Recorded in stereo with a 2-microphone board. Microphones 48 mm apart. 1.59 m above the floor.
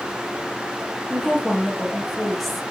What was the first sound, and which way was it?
A woman speaking, centre (ahead or behind).